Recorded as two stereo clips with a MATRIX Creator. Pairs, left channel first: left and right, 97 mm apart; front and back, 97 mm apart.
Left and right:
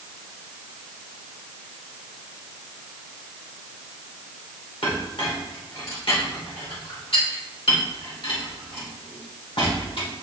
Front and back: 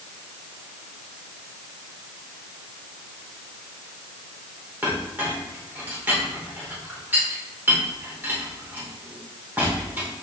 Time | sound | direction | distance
4.8 | a clink | 110° left | 2.0 m